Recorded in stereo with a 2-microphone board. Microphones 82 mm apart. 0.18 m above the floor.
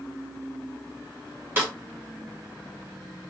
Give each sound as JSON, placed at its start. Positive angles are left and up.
{"t": 1.6, "sound": "a snare drum", "side_deg": -25, "distance_m": 2.5}